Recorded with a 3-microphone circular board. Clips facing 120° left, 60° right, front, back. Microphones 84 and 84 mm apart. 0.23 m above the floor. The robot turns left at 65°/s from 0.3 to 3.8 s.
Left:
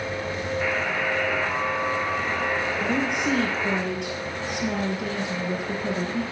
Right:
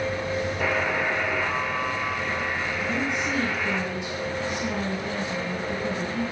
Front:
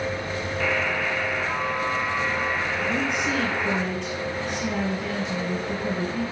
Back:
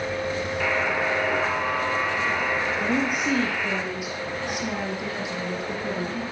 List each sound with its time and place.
0.6 s a buzzer: 95° right, 2.5 m; by 3.8 s 60° left, 2.5 m
2.8 s a woman speaking: 165° left, 4 m; by 6.2 s 100° left, 4 m